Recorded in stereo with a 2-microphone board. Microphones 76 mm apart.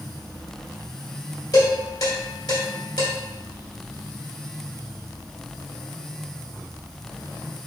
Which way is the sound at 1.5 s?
60° left (ahead or behind).